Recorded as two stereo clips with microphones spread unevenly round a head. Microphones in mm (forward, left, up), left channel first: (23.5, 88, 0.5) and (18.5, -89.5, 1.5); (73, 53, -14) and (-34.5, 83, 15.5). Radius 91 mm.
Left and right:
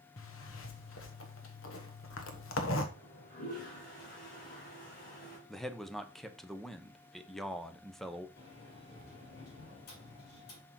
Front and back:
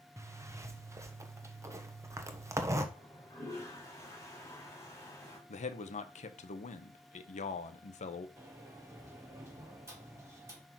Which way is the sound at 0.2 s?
105° left.